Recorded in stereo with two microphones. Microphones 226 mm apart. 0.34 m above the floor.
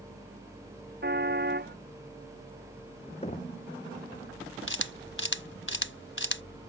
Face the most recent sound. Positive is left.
turn(degrees=60)  # may be behind; listen again after turning